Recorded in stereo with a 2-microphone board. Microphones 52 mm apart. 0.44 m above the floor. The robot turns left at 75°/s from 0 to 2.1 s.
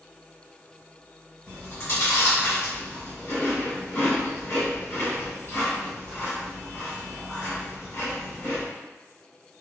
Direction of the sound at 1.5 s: 40° left (ahead or behind).